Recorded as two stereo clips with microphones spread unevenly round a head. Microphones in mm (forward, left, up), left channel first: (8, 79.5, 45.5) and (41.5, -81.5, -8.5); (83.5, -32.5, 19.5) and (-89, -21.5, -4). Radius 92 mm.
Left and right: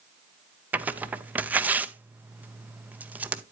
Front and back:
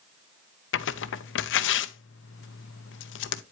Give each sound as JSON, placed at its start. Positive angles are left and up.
{"t": 0.7, "sound": "tearing paper", "azimuth_deg": -10, "distance_m": 0.6}